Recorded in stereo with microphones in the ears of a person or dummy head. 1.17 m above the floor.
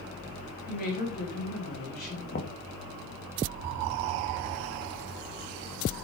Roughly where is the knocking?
Left.